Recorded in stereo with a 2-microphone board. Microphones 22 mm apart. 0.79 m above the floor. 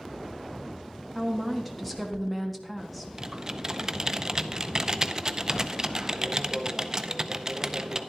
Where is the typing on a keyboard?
25° right (ahead or behind), 0.5 m.